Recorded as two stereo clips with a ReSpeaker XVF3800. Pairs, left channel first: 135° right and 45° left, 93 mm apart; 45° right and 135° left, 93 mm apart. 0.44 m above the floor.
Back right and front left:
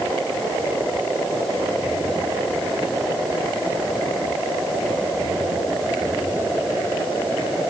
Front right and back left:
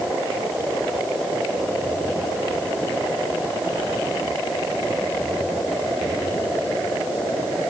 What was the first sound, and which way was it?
Only background noise.